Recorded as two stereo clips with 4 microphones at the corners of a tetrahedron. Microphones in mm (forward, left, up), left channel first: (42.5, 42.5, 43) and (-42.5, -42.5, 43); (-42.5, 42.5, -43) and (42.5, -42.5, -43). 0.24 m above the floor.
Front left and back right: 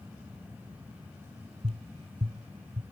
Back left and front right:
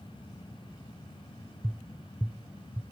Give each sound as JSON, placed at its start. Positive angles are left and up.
{"t": 1.6, "sound": "tapping", "azimuth_deg": -125}